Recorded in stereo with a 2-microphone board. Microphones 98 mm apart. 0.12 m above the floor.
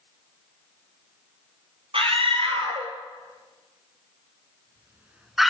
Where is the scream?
70° right (ahead or behind), 4.5 m; by 5.5 s centre (ahead or behind), 1.6 m.